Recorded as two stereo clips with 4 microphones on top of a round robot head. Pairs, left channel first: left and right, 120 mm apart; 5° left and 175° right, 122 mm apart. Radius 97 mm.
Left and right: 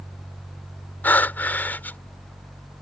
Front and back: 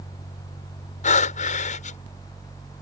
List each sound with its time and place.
1.0 s breathing: 15° left